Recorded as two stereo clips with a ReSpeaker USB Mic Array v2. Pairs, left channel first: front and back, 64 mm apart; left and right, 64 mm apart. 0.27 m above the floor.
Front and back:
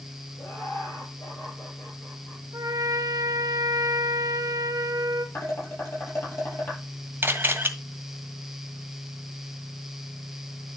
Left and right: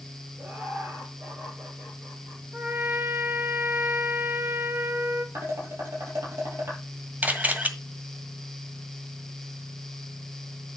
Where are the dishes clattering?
45° right, 5.5 m.